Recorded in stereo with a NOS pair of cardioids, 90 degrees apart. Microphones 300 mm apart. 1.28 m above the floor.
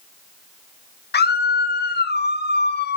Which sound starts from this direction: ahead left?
A scream, at 1.1 s.